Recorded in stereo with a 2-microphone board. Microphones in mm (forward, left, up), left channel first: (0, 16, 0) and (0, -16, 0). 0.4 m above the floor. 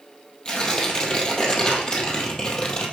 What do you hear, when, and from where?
0.5 s tearing paper: 25° left (ahead or behind), 1.9 m